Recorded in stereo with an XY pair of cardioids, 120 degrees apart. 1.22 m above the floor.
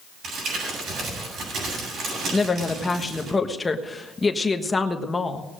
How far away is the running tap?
I don't hear a running tap.